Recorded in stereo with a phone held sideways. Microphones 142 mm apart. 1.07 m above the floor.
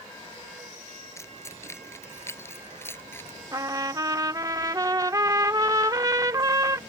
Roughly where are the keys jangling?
Centre.